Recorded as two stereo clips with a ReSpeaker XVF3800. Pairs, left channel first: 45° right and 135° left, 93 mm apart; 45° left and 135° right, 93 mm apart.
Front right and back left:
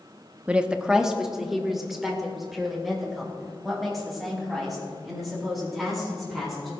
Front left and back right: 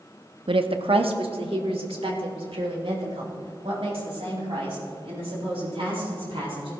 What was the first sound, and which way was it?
A woman speaking, 150° right.